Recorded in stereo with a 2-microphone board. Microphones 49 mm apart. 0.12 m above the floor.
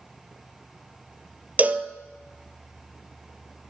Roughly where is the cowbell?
Right.